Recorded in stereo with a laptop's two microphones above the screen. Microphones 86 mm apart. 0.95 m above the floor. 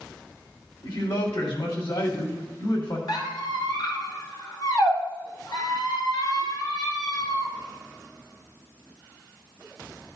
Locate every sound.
0.8 s a man speaking: 70° left (ahead or behind), 2.5 m
3.1 s a squeak: 60° left (ahead or behind), 2.0 m